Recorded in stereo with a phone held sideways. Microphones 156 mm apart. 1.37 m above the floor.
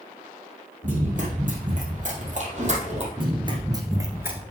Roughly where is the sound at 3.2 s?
Right.